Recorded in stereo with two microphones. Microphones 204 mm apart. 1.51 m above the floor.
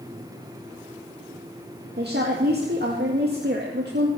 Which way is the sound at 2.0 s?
60° right (ahead or behind).